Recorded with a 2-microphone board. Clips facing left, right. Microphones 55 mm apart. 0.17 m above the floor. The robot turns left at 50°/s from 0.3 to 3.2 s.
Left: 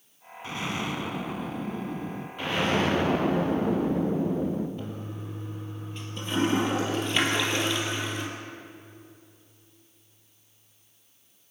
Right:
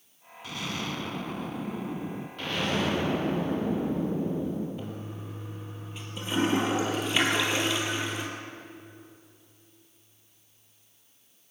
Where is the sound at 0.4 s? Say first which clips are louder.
Left 3 dB; 55° left, 0.9 m; by 2.3 s 35° right, 0.9 m.